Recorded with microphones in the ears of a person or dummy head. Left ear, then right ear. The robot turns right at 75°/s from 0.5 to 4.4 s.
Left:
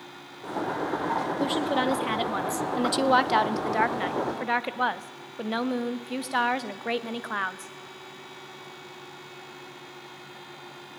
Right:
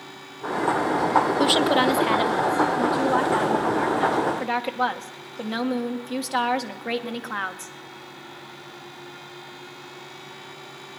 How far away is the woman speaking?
About 0.7 m.